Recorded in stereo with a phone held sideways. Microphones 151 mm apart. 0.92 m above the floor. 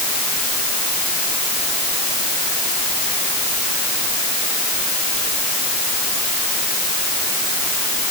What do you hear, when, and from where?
Only background noise.